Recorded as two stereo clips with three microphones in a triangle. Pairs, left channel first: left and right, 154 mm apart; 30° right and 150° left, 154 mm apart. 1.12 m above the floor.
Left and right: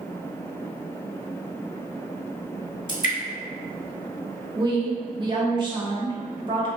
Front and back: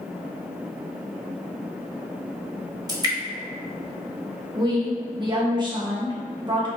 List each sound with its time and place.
2.9 s dripping: 90° left, 1.2 m
4.5 s a woman speaking: 150° right, 1.2 m